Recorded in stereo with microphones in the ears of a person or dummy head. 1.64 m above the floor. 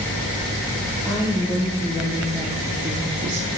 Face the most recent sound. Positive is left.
turn(degrees=-40)  # may be behind; listen again after turning